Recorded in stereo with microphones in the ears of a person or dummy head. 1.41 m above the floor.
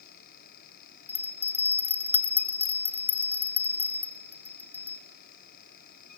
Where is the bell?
10° left (ahead or behind), 1.5 m.